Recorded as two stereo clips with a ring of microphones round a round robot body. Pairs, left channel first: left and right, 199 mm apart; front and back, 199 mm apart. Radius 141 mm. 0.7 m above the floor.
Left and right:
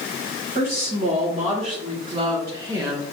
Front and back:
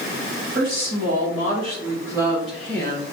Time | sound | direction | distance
0.6 | a woman speaking | 145° right | 1.9 m